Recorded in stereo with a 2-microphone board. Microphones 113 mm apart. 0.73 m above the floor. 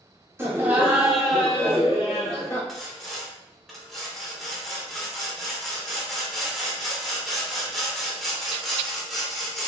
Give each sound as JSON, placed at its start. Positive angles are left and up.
{"t": 0.4, "sound": "laughter", "side_deg": -20, "distance_m": 0.8}
{"t": 2.7, "sound": "sawing", "side_deg": 0, "distance_m": 0.6}